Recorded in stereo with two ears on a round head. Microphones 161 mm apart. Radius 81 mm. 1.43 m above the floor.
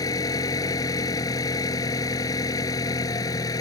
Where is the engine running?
20° left (ahead or behind).